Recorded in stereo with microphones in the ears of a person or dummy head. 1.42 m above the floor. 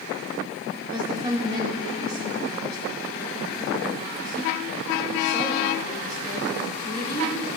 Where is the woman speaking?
20° right (ahead or behind), 2.5 m.